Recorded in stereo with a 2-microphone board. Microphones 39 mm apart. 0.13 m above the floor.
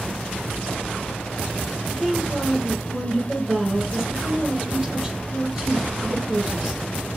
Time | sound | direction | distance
1.9 | a woman speaking | 10° right (ahead or behind) | 2 m